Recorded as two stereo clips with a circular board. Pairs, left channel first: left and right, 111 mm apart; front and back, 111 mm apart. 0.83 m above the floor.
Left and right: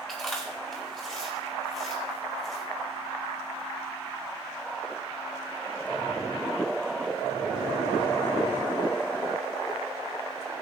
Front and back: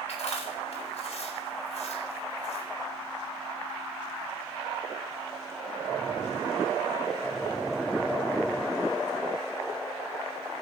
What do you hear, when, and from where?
0.1 s chewing: 5° left, 4 m